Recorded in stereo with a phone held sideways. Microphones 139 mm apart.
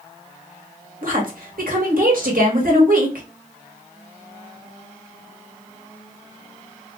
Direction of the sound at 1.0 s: 75° right (ahead or behind).